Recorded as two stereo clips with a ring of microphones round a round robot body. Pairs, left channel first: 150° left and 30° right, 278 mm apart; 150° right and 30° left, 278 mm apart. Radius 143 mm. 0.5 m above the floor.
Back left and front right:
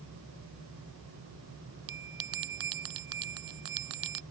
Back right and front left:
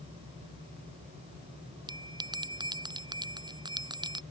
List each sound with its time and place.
1.9 s a bell: 45° right